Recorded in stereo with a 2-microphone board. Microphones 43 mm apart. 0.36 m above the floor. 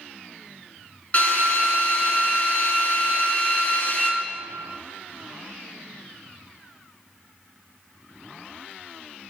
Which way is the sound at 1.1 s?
35° left (ahead or behind).